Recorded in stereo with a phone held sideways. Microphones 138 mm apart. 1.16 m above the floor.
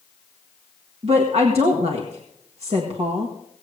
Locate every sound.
1.0 s a woman speaking: 50° right (ahead or behind), 1.7 m